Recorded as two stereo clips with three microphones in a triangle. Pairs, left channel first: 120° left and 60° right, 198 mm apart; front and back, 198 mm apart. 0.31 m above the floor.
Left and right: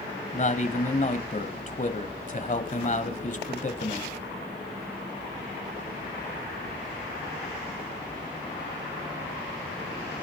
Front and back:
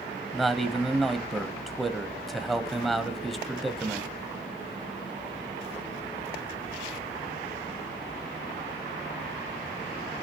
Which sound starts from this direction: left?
A man speaking, at 0.3 s.